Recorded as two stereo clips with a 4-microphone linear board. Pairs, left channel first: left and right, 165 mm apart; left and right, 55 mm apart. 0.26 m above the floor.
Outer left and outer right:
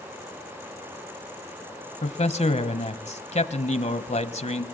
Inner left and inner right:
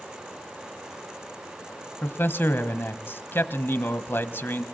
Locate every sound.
2.0 s a man speaking: 45° left (ahead or behind), 1.3 m